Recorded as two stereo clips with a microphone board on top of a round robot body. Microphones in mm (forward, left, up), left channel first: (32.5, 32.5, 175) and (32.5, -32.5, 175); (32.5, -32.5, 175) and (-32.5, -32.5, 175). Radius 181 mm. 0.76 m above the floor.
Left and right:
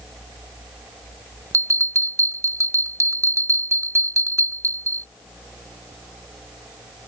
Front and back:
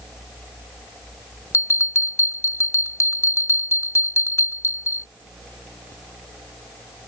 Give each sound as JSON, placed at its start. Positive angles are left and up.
{"t": 1.5, "sound": "a bell", "azimuth_deg": -50}